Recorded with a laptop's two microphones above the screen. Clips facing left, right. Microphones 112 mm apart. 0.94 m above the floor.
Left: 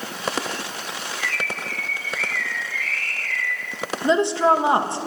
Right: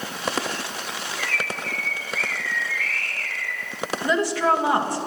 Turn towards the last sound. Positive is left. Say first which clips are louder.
# left 4 dB
turn(degrees=25)  # may be behind; listen again after turning